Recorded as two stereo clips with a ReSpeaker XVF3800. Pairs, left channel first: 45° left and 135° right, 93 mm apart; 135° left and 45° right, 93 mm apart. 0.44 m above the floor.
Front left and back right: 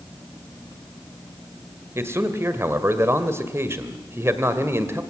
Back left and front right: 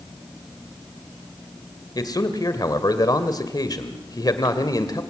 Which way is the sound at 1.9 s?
170° left.